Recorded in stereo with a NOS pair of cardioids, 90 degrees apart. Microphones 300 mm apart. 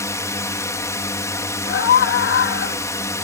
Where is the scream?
45° left.